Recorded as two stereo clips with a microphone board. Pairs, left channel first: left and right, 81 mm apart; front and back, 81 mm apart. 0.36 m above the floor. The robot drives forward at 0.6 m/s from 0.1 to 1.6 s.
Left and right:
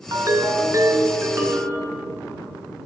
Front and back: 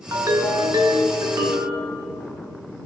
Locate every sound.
0.1 s a ringtone: 135° right, 1.3 m; by 1.9 s 155° right, 2 m